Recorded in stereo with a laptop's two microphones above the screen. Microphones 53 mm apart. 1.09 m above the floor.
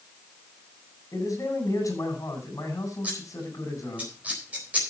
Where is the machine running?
No machine running in this recording.